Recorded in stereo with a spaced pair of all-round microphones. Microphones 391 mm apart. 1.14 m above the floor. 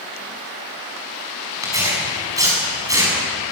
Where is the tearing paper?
10° right (ahead or behind), 8 m.